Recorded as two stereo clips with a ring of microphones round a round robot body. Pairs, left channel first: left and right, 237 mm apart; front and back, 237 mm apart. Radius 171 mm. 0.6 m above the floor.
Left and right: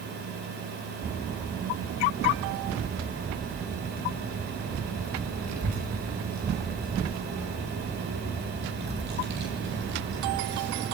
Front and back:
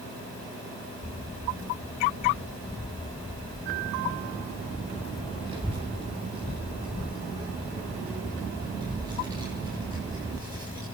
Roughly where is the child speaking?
Right.